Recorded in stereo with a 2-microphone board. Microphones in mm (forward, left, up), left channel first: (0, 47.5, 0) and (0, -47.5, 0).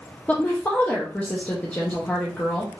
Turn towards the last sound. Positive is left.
turn(degrees=15)  # may be behind; listen again after turning